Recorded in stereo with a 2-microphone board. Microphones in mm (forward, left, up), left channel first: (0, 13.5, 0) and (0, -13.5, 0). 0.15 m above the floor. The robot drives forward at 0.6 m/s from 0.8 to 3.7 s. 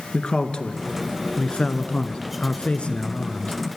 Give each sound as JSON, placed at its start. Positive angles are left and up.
{"t": 0.1, "sound": "a man speaking", "side_deg": 45, "distance_m": 2.0}